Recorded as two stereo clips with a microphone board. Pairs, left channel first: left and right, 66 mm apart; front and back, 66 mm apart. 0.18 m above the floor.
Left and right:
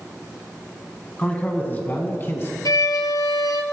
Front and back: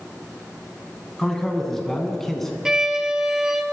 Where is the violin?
100° left, 0.9 m.